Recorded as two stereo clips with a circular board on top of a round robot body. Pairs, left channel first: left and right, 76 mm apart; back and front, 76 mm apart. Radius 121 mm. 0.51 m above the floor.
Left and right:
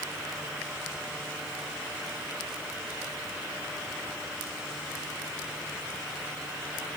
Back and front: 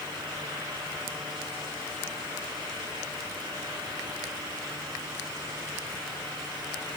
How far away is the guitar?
I don't hear a guitar.